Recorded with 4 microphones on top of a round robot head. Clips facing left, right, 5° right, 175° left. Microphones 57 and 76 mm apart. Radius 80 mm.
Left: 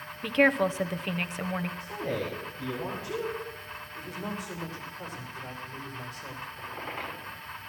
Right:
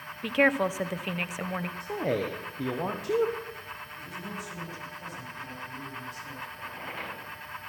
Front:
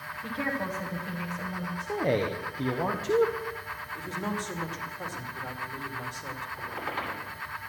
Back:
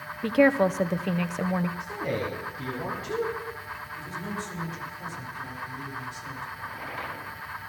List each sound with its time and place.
0.2 s a woman speaking: 175° right, 0.8 m
1.8 s a man speaking: 55° right, 1.4 m
4.0 s a woman speaking: 35° left, 3 m
6.6 s a squeak: 10° left, 10 m